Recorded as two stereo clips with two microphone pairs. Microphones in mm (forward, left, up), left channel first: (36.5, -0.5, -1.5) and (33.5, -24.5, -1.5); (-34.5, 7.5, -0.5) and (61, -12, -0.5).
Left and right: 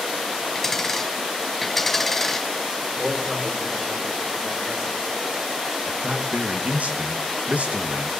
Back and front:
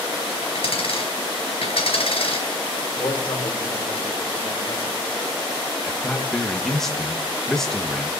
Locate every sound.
0.6 s a dropped coin: 160° left, 4 m
2.9 s a man speaking: 155° right, 5 m
5.9 s a man speaking: 105° right, 1.5 m